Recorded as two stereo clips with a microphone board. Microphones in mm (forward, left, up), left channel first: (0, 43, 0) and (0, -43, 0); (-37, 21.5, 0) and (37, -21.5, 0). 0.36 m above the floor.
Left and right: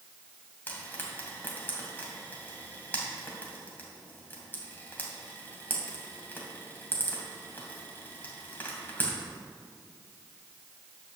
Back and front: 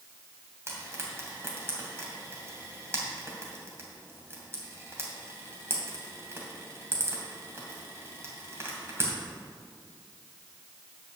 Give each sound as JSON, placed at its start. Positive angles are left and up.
{"t": 0.7, "sound": "frying", "azimuth_deg": 25, "distance_m": 2.5}